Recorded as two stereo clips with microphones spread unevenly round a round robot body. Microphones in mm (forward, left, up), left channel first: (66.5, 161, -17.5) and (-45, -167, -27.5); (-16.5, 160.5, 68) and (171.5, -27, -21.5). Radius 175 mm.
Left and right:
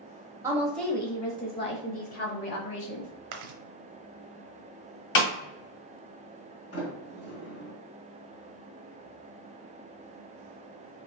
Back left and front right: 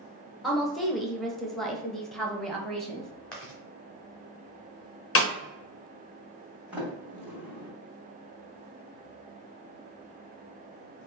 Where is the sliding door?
25° left, 2 m.